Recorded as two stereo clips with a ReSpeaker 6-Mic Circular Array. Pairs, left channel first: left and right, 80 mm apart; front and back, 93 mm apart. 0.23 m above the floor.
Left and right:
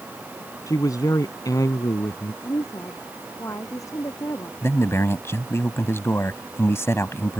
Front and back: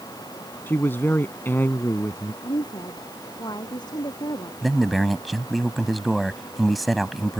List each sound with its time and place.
0.7 s a man speaking: 65° left
2.4 s a woman speaking: 40° left
4.6 s a man speaking: 90° left